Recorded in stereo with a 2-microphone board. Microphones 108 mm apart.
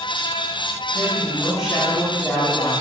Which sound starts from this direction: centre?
A man speaking, at 0.9 s.